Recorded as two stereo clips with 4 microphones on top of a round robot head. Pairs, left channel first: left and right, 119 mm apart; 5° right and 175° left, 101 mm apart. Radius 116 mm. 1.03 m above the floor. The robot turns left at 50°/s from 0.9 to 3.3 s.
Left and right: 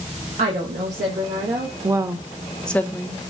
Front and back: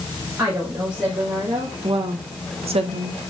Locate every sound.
0.4 s a woman speaking: 110° right, 1.5 m; by 1.7 s 150° right, 1.5 m
1.8 s a woman speaking: 145° right, 0.9 m; by 3.3 s 140° left, 0.9 m